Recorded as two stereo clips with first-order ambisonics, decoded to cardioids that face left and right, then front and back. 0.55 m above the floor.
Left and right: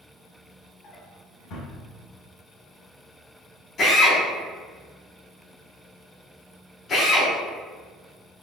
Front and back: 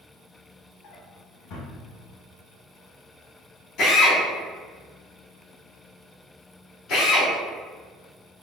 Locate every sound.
0.8 s a drawer: 40° left, 0.8 m
3.8 s a drill: 35° left, 1.8 m